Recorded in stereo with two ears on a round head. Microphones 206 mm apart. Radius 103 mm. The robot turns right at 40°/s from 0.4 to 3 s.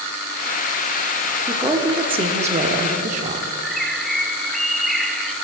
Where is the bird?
Centre (ahead or behind), 0.6 m.